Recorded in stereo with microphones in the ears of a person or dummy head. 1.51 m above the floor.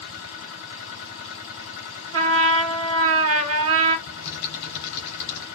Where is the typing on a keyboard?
55° left (ahead or behind), 2.5 m.